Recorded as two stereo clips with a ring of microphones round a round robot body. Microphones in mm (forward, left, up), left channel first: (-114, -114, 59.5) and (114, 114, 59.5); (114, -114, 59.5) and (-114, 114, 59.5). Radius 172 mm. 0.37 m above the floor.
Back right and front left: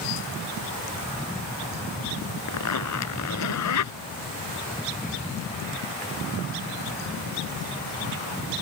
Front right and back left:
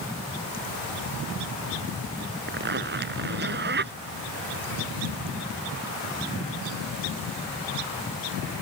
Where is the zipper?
170° right.